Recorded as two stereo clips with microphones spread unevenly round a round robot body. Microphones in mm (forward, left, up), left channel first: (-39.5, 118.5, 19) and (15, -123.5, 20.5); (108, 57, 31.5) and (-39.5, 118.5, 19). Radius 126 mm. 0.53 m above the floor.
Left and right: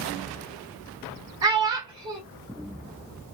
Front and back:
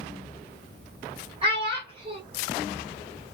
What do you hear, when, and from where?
1.4 s a child speaking: 150° right, 1.3 m